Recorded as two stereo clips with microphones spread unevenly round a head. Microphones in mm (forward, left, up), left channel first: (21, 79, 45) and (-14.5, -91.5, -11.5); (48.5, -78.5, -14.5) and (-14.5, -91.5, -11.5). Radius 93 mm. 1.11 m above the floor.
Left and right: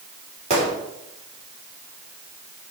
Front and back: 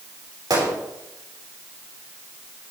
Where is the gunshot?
155° right, 4 m.